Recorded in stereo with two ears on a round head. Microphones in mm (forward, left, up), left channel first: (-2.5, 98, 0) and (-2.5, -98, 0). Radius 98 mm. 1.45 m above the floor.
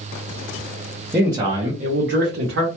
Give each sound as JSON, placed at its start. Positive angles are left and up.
{"t": 1.1, "sound": "a man speaking", "side_deg": -10, "distance_m": 0.8}